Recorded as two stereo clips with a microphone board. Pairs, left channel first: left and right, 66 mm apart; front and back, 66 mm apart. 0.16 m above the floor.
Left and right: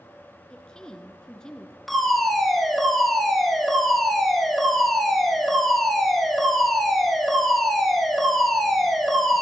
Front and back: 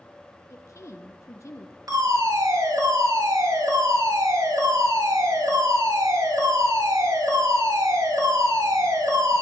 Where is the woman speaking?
15° left, 1.9 m.